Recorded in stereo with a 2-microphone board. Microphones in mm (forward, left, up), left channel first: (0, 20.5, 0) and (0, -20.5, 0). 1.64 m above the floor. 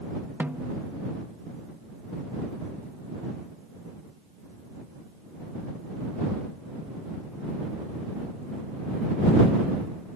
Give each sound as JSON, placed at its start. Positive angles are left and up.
{"t": 0.4, "sound": "a snare drum", "side_deg": -50}